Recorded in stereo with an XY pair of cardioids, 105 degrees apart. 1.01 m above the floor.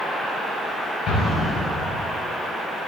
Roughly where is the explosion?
Left.